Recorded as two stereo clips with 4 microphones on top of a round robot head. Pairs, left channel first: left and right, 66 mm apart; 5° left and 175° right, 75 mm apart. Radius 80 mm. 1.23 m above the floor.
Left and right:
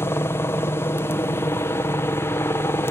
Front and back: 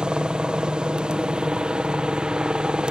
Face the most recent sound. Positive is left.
turn(degrees=110)